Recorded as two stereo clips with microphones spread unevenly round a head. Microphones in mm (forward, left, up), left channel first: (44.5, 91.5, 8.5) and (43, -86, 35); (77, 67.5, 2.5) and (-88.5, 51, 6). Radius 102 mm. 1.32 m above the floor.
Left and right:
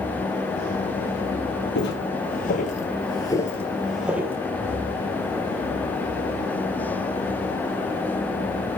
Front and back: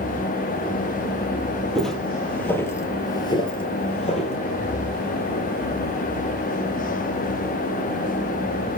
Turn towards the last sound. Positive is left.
turn(degrees=-30)